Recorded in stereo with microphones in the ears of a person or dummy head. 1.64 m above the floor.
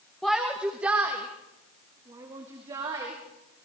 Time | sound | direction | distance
0.2 | a shout | centre (ahead or behind) | 1.5 m